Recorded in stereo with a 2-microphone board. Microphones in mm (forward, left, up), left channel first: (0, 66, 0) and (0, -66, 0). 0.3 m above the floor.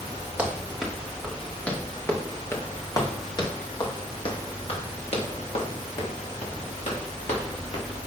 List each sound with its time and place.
0.4 s running footsteps: 10° right (ahead or behind), 2 m; by 7.8 s 65° left (ahead or behind), 4 m